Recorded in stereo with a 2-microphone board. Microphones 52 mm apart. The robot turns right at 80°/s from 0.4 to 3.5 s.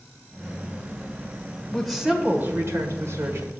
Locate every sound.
1.7 s a woman speaking: 165° left, 1.8 m; by 3.6 s 50° right, 1.8 m